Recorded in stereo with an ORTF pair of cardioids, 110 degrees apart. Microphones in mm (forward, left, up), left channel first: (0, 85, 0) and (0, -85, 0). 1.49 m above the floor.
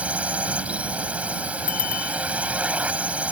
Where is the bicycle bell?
50° left.